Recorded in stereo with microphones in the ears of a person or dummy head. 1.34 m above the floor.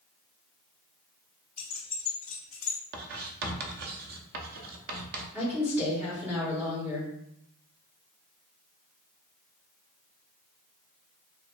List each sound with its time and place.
1.6 s keys jangling: 5° left (ahead or behind), 1.7 m
2.9 s writing: 50° right (ahead or behind), 0.7 m
5.3 s a woman speaking: 10° right (ahead or behind), 1.4 m